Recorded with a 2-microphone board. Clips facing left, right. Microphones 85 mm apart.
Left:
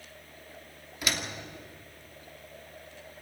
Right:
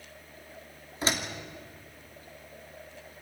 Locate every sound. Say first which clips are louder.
1.0 s a door slam: right 3 dB; 30° right (ahead or behind), 2.5 m